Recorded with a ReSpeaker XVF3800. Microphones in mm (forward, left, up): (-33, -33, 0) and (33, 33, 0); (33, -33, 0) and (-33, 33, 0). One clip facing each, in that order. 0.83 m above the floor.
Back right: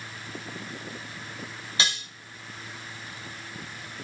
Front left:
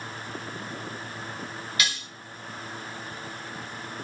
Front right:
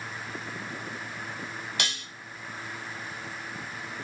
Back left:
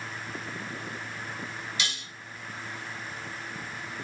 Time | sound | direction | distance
1.8 | dishes clattering | 75° right | 0.9 m